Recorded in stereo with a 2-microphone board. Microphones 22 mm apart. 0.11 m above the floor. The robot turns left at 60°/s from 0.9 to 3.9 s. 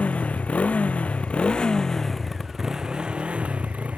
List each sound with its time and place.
0.0 s a motorcycle: 85° left; by 4.0 s 95° right